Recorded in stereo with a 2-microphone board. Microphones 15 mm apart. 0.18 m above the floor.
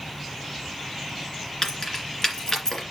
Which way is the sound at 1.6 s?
35° left (ahead or behind).